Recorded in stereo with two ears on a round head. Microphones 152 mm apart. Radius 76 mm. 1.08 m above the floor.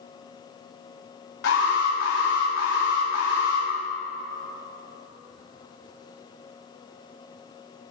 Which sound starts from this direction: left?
An alarm, at 1.4 s.